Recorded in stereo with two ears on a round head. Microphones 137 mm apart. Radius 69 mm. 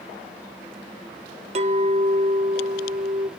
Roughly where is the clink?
Right.